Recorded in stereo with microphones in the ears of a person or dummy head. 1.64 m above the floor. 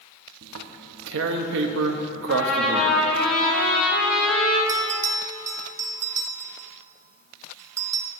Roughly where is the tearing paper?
Right.